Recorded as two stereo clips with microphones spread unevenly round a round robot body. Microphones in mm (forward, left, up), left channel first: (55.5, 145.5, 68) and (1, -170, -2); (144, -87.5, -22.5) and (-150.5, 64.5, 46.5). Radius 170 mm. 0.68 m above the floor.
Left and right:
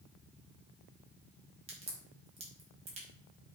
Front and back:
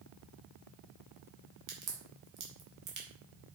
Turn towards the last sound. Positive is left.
turn(degrees=-165)